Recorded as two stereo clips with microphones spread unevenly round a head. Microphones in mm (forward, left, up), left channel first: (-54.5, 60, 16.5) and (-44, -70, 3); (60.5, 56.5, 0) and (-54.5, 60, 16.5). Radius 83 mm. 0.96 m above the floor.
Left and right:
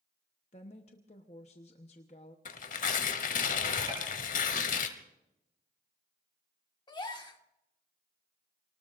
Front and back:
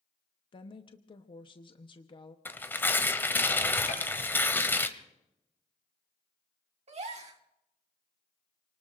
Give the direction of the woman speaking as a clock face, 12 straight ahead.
11 o'clock.